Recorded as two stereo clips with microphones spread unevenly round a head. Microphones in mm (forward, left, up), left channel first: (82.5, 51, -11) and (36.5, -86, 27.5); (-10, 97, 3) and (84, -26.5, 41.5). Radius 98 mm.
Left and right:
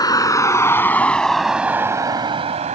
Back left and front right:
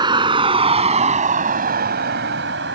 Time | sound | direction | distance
0.0 | a vehicle | 5° left | ?